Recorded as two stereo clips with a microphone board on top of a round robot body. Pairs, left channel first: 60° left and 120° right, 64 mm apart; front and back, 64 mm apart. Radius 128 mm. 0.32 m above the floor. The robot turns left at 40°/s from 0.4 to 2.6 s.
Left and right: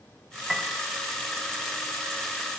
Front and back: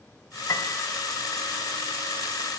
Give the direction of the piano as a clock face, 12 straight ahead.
1 o'clock.